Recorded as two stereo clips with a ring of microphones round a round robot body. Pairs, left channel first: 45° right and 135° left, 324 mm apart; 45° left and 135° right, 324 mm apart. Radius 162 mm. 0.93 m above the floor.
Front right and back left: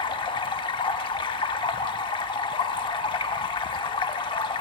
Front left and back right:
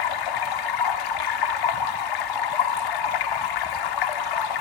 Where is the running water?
30° left, 0.9 m.